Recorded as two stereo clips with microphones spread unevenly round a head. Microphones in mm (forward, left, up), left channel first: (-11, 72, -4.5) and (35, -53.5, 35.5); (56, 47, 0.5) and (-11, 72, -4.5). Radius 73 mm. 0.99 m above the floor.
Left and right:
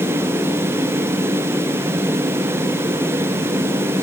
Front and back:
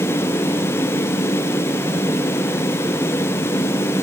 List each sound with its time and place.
Only background noise.